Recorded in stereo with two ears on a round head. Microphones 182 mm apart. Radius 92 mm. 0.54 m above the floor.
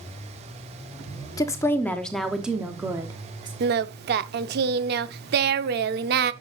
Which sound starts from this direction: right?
Singing, at 3.6 s.